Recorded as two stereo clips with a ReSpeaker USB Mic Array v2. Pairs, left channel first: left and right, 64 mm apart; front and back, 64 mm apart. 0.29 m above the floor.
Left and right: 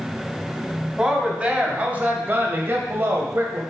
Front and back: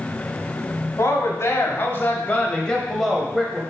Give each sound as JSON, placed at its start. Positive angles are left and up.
{"t": 1.0, "sound": "a woman speaking", "azimuth_deg": -15, "distance_m": 1.5}